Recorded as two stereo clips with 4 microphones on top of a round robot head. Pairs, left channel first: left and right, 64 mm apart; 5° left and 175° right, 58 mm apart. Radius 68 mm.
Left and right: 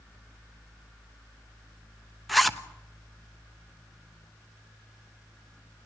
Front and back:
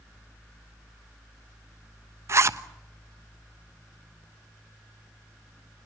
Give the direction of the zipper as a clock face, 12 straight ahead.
6 o'clock.